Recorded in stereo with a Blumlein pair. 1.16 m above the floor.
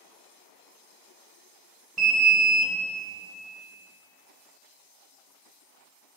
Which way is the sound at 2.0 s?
20° right.